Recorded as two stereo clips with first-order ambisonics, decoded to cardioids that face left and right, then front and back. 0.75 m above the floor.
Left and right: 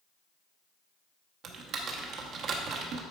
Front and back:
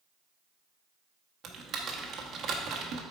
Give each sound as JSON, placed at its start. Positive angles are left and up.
{"t": 1.4, "sound": "typing on a keyboard", "azimuth_deg": -130, "distance_m": 0.9}